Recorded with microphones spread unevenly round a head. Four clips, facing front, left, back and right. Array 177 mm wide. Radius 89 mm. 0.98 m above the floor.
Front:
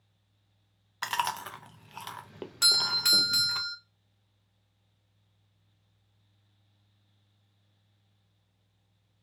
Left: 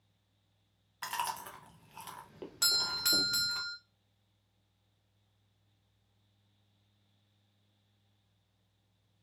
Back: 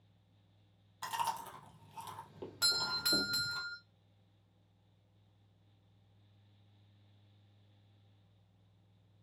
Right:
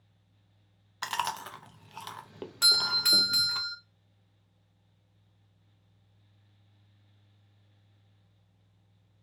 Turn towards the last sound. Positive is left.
turn(degrees=-170)